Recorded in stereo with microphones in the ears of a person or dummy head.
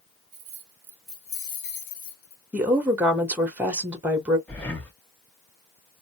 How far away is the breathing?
About 0.7 m.